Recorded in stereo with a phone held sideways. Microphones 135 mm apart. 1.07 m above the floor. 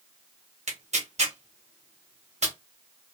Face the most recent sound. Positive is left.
turn(degrees=-55)  # may be behind; listen again after turning